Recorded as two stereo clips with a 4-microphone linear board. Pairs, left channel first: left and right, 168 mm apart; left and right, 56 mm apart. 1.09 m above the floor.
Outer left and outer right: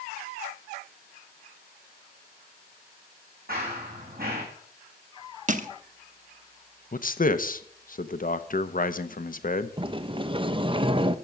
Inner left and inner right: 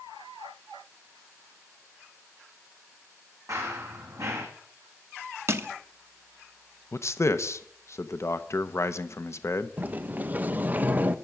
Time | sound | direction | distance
3.5 | running footsteps | 60° right (ahead or behind) | 3 m
5.5 | crushing | 50° right (ahead or behind) | 0.8 m
6.9 | a man speaking | 55° left (ahead or behind) | 0.8 m
9.8 | a sliding door | 30° right (ahead or behind) | 0.5 m